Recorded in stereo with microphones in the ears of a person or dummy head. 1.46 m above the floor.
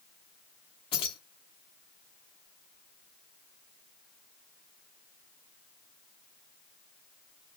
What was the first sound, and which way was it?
Keys jangling, 25° left (ahead or behind).